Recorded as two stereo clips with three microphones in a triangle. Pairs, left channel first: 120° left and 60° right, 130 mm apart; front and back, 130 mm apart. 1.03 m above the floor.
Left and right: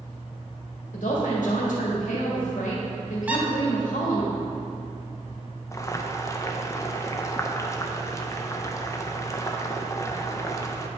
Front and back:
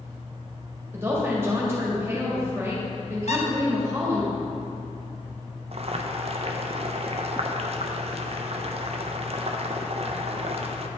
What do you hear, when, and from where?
0.9 s a woman speaking: 110° left, 1.5 m
3.3 s a squeak: 20° left, 0.7 m
5.7 s boiling: straight behind, 0.5 m